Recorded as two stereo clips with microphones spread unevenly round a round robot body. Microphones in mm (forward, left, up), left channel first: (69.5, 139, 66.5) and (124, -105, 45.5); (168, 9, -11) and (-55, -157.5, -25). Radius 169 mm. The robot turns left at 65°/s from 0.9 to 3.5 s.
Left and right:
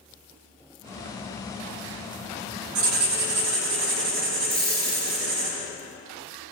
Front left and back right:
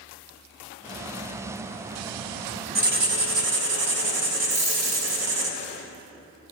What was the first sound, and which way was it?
Writing, 80° right.